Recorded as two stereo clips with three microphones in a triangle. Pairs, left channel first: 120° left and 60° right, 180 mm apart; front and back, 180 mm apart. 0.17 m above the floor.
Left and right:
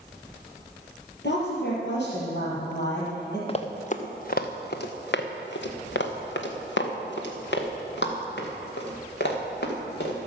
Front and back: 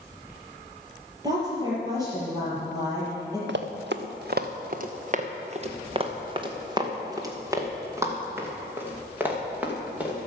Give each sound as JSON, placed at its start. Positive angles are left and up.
{"t": 1.2, "sound": "a woman speaking", "azimuth_deg": 110, "distance_m": 4.5}
{"t": 3.5, "sound": "running footsteps", "azimuth_deg": 175, "distance_m": 1.3}